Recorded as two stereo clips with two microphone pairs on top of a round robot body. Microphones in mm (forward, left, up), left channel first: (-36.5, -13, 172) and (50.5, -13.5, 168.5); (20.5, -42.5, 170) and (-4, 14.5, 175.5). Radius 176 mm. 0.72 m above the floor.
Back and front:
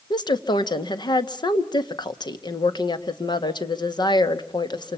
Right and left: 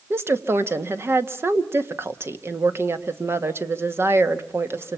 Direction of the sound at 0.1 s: 160° left.